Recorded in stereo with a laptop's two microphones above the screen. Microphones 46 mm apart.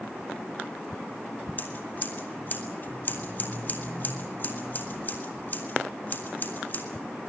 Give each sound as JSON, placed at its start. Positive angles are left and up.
{"t": 1.6, "sound": "scissors", "side_deg": 45, "distance_m": 2.0}